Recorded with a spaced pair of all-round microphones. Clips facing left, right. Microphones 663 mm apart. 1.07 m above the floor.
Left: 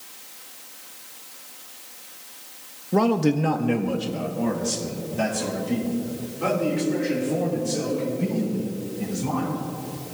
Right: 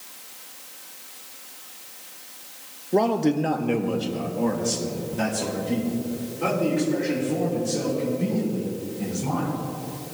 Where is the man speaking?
40° left (ahead or behind), 0.6 m; by 9.6 s centre (ahead or behind), 6.5 m.